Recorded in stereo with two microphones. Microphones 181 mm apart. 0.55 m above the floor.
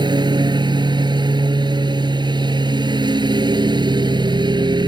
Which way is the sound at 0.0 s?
25° right (ahead or behind).